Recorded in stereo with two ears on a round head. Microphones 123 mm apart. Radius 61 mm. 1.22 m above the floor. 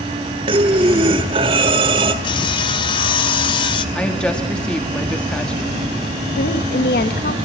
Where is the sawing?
35° left (ahead or behind), 1.2 m.